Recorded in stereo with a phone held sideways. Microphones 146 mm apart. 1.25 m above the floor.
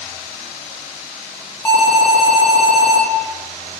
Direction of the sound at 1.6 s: 15° left (ahead or behind).